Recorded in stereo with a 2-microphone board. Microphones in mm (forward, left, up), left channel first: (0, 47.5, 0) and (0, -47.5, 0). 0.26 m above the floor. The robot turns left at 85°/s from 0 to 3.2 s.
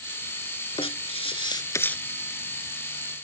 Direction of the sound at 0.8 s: 115° left.